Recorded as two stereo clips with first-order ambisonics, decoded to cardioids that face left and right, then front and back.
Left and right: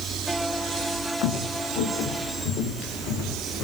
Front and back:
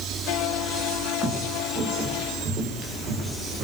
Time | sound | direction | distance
1.2 | footsteps | 110° left | 5 m